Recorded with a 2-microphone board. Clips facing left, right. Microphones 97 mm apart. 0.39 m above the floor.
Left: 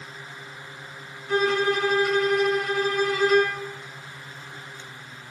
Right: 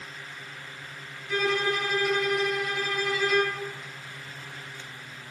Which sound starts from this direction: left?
A violin, at 1.3 s.